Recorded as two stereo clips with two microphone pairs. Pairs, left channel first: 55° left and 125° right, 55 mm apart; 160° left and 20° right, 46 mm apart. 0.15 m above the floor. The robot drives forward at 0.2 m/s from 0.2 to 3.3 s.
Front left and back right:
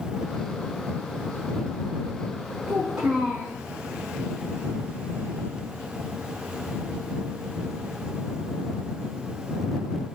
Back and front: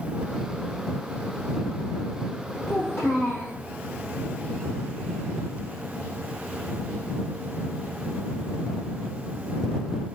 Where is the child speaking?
160° left, 4 m.